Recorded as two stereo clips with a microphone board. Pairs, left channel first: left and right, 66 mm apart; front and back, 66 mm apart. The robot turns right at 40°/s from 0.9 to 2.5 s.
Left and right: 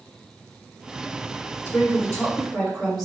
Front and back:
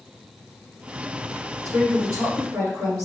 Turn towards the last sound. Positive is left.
turn(degrees=165)